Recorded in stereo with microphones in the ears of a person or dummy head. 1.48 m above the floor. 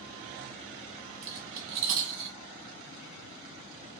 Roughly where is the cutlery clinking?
Right.